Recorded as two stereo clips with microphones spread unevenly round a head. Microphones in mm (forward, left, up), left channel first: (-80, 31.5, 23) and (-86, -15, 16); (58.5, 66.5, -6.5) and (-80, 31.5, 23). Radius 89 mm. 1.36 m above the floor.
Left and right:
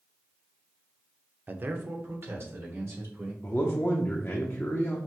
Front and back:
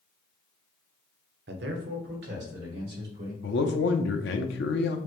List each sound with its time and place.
1.5 s a man speaking: 155° right, 0.6 m; by 3.3 s 130° right, 2.5 m
3.4 s a man speaking: straight ahead, 0.6 m